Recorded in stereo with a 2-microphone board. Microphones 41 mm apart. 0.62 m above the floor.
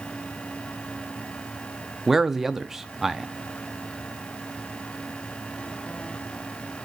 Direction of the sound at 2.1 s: 10° right (ahead or behind).